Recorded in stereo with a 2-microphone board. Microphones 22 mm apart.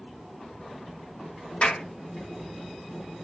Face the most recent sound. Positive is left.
turn(degrees=65)  # may be behind; listen again after turning